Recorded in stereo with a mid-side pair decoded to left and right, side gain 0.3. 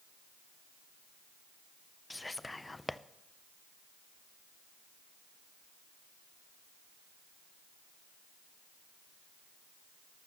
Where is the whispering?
25° left, 0.6 m.